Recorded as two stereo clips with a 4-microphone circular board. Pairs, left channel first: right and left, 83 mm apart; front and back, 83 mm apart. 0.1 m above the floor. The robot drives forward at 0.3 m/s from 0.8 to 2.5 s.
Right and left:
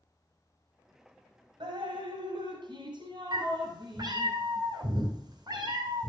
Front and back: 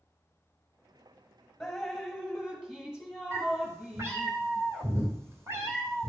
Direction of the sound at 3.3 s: 125° left.